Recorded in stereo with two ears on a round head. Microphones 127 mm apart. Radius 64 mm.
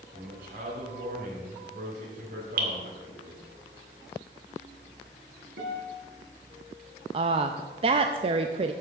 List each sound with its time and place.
0.1 s a man speaking: 70° right (ahead or behind), 3.5 m
2.6 s dripping: 70° right (ahead or behind), 2 m
5.6 s a guitar: 85° right, 3 m
7.1 s a woman speaking: 40° right (ahead or behind), 0.6 m